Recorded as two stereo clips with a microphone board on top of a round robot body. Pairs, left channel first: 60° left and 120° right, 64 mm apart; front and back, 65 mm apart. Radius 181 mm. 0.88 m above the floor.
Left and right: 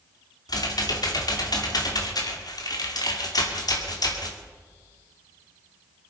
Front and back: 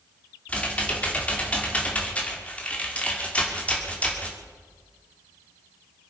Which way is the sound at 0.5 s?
70° left.